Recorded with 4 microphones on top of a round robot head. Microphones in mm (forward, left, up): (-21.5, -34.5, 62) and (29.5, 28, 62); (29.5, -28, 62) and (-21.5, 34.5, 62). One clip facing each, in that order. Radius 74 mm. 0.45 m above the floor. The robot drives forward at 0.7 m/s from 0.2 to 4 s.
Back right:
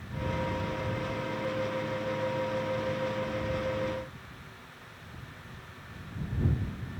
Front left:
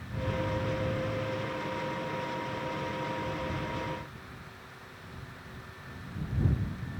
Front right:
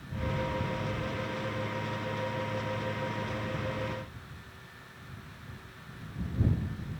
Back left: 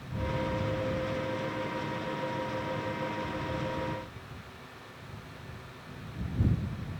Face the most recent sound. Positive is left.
No sound to turn to.